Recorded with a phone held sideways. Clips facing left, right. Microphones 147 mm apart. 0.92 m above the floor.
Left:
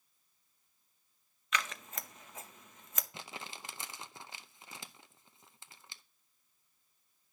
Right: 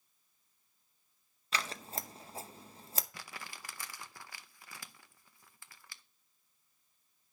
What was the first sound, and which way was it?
Scissors, 35° right (ahead or behind).